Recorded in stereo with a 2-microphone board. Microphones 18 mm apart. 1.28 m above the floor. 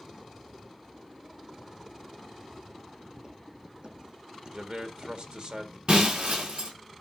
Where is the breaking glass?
75° right (ahead or behind), 4 m.